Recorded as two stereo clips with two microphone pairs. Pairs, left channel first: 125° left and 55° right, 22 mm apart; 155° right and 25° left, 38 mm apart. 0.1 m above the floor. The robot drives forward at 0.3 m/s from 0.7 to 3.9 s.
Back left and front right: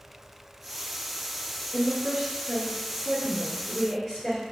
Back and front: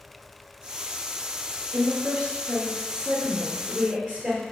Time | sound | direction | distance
1.7 | a woman speaking | 70° left | 1.6 m